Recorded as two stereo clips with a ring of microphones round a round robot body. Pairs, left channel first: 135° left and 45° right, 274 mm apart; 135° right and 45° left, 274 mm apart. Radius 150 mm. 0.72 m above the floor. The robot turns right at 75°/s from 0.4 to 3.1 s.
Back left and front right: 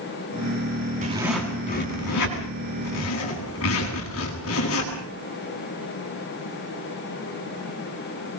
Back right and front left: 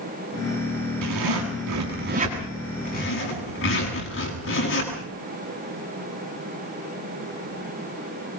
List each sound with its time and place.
1.0 s a zipper: 20° left, 8.5 m; by 4.9 s straight behind, 8.5 m